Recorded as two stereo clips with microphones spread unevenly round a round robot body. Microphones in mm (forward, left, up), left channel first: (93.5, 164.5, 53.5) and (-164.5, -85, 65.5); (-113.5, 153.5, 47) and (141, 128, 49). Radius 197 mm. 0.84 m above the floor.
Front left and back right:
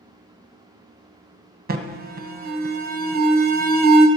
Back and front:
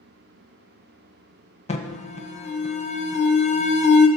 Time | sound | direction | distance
1.7 | an alarm | 170° right | 1.1 m